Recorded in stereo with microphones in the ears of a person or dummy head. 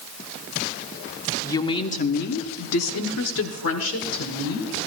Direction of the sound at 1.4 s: 15° left (ahead or behind).